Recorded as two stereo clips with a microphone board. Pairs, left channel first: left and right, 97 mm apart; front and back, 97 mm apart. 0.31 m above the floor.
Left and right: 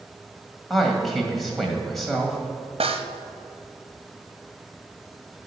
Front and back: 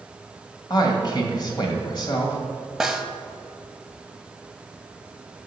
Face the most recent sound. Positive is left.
turn(degrees=-90)